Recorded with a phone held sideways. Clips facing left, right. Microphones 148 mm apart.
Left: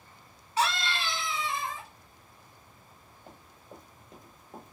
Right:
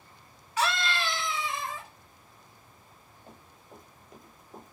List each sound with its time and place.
0.6 s a scream: 30° left (ahead or behind), 1.4 m
3.3 s running footsteps: 20° left (ahead or behind), 1.8 m; by 4.7 s 25° left (ahead or behind), 1.7 m